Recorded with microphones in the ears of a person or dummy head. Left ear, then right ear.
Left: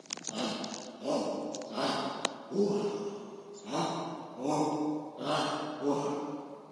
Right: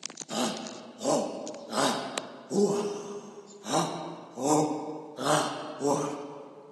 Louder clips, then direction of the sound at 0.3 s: Right 5 dB; 55° right (ahead or behind).